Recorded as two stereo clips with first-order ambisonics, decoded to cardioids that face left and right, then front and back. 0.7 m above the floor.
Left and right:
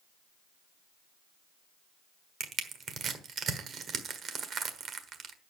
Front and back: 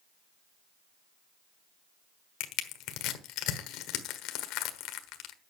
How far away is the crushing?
About 1.3 m.